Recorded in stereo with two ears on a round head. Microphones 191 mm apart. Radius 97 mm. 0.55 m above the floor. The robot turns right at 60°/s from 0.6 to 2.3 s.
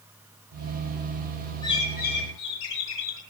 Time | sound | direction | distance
1.6 | a bird | 20° left | 5.5 m